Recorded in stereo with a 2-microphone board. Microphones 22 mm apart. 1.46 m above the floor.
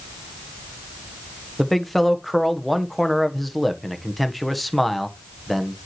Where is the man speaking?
Centre (ahead or behind), 1.1 m.